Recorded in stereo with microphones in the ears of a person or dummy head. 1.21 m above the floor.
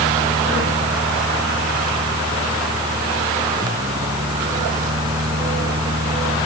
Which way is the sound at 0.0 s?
25° right (ahead or behind).